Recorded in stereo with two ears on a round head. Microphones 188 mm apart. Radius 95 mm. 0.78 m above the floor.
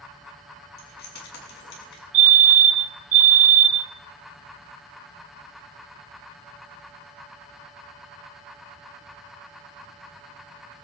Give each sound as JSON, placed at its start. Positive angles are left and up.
{"t": 0.8, "sound": "keys jangling", "side_deg": 50, "distance_m": 4.5}
{"t": 2.1, "sound": "a fire alarm", "side_deg": -65, "distance_m": 3.5}